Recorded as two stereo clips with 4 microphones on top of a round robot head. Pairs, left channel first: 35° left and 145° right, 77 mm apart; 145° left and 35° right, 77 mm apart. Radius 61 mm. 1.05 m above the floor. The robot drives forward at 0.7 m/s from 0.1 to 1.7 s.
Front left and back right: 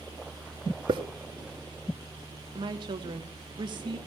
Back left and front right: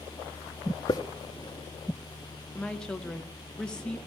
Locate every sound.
0.9 s a hiss: 170° right, 0.8 m
2.5 s a woman speaking: 135° right, 1.4 m